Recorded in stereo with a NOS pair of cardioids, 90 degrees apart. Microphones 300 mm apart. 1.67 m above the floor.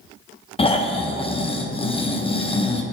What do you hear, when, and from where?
0.6 s snoring: 20° left, 1.3 m